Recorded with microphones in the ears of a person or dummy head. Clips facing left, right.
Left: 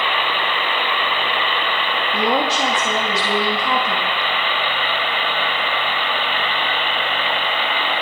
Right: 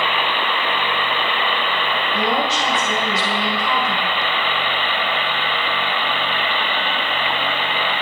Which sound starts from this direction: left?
A woman speaking, at 2.1 s.